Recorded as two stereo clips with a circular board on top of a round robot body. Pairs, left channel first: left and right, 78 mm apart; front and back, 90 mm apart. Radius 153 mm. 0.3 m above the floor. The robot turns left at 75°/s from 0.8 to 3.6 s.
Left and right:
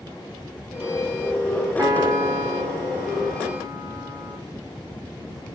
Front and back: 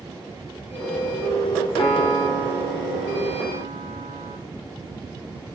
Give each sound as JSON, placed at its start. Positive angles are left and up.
{"t": 1.8, "sound": "a piano", "azimuth_deg": -50, "distance_m": 2.0}